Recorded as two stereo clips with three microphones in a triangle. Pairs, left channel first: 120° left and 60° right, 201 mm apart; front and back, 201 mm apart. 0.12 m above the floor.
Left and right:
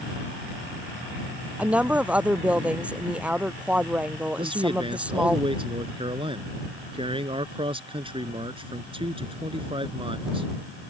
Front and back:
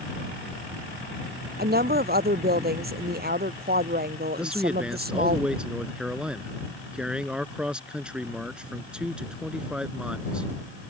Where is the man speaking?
100° right.